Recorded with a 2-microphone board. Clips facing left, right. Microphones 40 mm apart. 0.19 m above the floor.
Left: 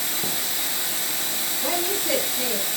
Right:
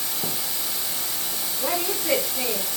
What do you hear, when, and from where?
0.0 s running water: 70° left (ahead or behind), 0.7 m
1.6 s a woman speaking: 25° right (ahead or behind), 1.6 m